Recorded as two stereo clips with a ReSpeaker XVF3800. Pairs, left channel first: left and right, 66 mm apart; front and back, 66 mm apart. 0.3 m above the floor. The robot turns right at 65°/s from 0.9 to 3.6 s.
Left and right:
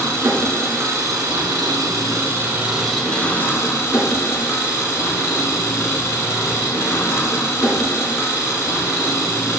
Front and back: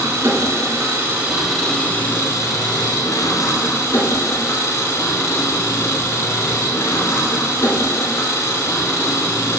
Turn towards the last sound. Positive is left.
turn(degrees=45)